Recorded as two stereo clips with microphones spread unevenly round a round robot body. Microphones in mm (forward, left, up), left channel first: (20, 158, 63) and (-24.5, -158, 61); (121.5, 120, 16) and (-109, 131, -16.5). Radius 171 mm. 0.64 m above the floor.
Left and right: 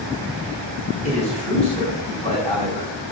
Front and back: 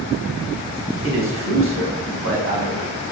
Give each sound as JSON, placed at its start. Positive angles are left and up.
{"t": 1.0, "sound": "a man speaking", "azimuth_deg": 155, "distance_m": 4.5}